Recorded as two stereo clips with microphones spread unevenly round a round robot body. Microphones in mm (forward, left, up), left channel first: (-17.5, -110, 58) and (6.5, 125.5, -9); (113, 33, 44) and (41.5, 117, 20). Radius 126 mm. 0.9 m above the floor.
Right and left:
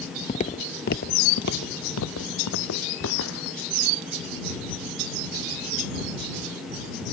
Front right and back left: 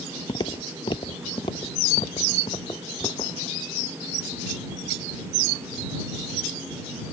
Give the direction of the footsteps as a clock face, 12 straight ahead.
2 o'clock.